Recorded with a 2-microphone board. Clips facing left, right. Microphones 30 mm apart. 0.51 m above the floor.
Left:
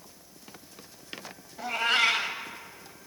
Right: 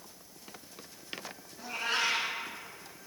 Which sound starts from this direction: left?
A cat meowing, at 1.6 s.